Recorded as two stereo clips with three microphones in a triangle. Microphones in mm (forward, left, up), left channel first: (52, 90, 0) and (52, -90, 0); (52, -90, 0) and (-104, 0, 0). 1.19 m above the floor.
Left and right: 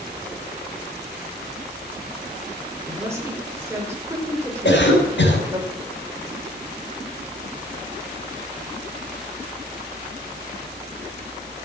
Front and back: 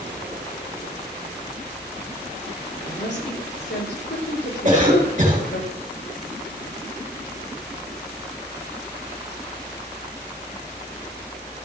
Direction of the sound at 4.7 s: 95° left.